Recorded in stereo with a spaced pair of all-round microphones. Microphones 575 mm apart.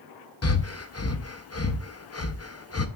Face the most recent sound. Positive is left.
turn(degrees=25)  # may be behind; listen again after turning